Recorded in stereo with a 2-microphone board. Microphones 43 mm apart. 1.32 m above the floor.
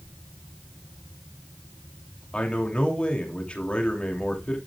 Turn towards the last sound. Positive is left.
turn(degrees=25)  # may be behind; listen again after turning